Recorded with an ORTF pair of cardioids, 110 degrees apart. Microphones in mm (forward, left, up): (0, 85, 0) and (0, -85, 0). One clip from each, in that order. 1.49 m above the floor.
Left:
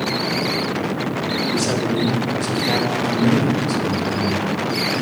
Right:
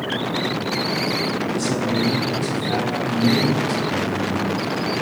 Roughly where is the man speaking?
Ahead left.